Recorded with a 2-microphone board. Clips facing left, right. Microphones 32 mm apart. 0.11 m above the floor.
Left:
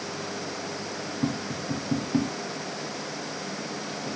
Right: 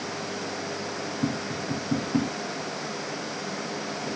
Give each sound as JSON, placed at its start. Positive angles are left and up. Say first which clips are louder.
{"t": 1.2, "sound": "tapping", "louder": "even", "side_deg": 10, "distance_m": 6.5}